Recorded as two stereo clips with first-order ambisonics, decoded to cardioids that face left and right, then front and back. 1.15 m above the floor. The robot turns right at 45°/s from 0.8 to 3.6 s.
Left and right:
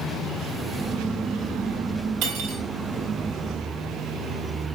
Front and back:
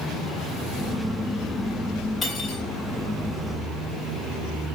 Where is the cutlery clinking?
80° right, 4 m; by 2.6 s 65° right, 4 m.